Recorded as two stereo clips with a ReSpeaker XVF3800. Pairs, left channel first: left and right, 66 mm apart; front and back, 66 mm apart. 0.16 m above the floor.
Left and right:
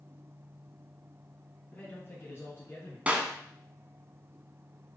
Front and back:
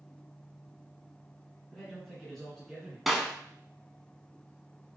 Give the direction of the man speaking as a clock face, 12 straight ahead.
10 o'clock.